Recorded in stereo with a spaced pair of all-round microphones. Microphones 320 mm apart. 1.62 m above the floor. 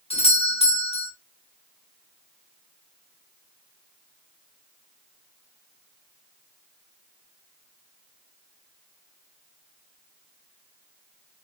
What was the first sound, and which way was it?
A doorbell, 20° left (ahead or behind).